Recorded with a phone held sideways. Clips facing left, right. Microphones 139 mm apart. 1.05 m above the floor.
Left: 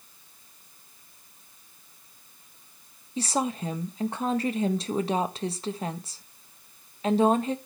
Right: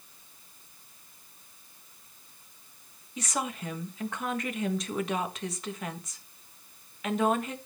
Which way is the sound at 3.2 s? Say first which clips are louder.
Left 6 dB; 30° left (ahead or behind).